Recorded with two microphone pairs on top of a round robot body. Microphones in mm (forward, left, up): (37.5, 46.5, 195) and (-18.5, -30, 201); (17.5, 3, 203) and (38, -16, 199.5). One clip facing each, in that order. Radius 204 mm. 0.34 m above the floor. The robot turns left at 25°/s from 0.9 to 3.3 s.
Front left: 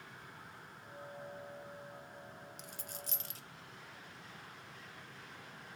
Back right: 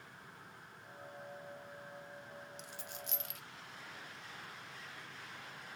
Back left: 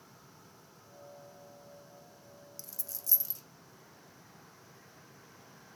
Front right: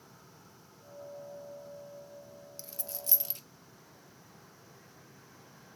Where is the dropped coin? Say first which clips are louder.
Back right 1 dB, front right 6 dB; 15° left, 0.7 m; by 3.4 s straight ahead, 0.7 m.